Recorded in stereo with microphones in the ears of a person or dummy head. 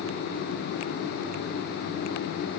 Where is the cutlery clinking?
No cutlery clinking in this recording.